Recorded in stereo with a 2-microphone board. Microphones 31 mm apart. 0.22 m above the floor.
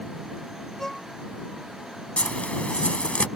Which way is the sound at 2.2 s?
45° left (ahead or behind).